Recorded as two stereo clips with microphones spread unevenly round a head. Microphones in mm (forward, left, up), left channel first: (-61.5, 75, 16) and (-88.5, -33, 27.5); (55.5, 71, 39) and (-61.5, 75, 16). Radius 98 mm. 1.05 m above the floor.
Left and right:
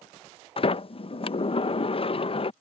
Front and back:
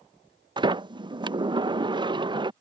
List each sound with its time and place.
0.6 s a sliding door: 120° left